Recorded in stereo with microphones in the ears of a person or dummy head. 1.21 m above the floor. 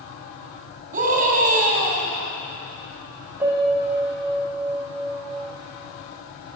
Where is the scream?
45° right (ahead or behind), 3 m.